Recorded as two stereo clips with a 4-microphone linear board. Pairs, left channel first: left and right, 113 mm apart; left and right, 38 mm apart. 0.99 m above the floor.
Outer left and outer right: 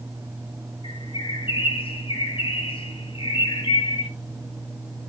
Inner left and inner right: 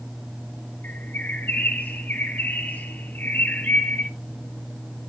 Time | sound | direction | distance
0.8 | a bird | 55° left (ahead or behind) | 3 m